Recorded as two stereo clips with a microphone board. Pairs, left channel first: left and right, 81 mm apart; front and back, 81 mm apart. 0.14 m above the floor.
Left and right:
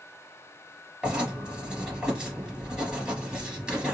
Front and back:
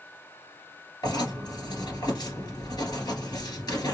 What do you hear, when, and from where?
1.0 s writing: 10° right, 2.0 m